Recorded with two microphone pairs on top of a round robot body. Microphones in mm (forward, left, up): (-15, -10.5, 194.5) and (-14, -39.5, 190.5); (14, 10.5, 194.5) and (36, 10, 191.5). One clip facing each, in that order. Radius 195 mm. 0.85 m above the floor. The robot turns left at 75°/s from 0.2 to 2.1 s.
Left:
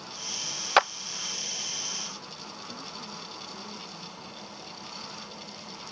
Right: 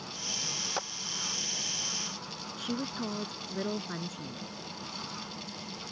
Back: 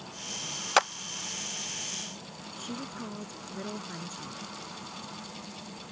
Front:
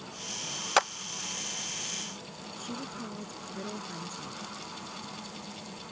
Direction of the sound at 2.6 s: 100° right.